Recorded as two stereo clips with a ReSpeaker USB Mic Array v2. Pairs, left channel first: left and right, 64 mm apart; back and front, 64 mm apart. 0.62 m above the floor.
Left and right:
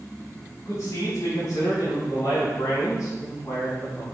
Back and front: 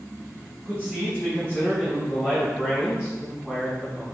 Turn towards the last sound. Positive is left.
turn(degrees=75)